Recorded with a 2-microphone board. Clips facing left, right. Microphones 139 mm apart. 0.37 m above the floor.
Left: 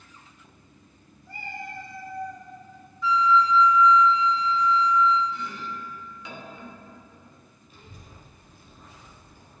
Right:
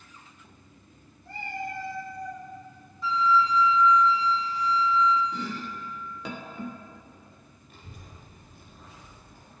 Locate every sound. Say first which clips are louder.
1.2 s a cat meowing: right 4 dB; 80° right, 1.6 m; by 2.5 s 85° right, 2.5 m
3.0 s a flute: left 3 dB; 30° right (ahead or behind), 0.9 m
5.3 s chopping: right 1 dB; 60° right (ahead or behind), 0.6 m
7.7 s a child speaking: even; 65° right (ahead or behind), 1.6 m